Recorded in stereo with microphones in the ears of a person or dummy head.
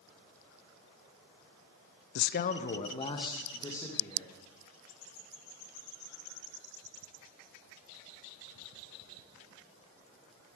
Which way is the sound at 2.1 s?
60° left (ahead or behind).